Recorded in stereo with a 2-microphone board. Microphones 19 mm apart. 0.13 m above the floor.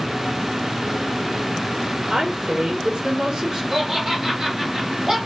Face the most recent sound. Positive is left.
turn(degrees=-20)  # may be behind; listen again after turning